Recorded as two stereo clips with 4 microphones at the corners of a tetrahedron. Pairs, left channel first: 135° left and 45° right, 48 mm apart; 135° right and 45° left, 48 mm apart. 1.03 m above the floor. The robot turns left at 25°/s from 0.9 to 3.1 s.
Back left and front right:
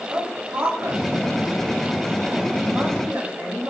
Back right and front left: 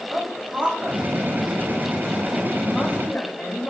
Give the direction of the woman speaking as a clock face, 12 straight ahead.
1 o'clock.